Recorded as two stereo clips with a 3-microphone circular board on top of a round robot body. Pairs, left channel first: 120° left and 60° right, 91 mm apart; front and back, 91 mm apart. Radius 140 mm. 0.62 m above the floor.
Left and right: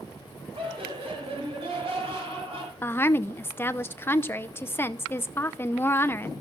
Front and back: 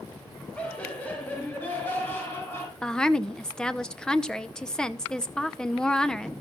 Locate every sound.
0.6 s laughter: 75° right, 5.5 m; by 2.7 s 65° right, 6 m
2.8 s a woman speaking: 75° left, 1.0 m